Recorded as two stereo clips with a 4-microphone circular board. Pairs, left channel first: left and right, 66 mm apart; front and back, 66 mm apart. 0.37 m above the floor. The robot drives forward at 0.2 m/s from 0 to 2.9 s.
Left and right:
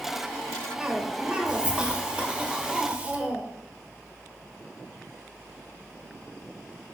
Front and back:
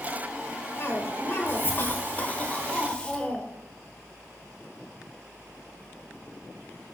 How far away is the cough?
About 1.1 m.